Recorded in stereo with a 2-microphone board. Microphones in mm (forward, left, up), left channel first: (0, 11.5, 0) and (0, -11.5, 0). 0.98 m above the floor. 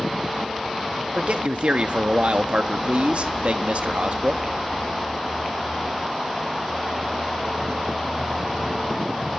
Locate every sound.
1.1 s a man speaking: 70° right (ahead or behind), 1.1 m